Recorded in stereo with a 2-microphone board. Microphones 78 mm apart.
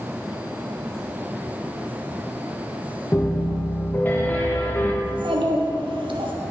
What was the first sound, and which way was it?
A piano, 25° left (ahead or behind).